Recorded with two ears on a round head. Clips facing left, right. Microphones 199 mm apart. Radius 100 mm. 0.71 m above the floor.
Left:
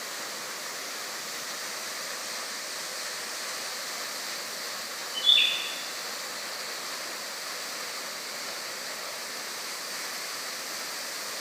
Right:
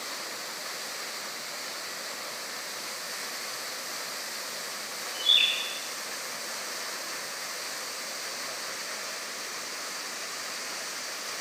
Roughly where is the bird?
Left.